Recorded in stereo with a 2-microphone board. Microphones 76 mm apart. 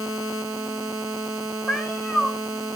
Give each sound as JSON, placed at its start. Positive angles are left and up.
{"t": 1.7, "sound": "a cat meowing", "side_deg": 0, "distance_m": 3.5}